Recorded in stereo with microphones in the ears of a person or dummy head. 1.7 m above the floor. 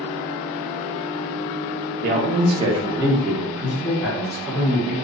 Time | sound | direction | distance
2.0 | a man speaking | 45° right (ahead or behind) | 0.8 m